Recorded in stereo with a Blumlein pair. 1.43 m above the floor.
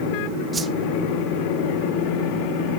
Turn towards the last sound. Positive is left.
turn(degrees=-15)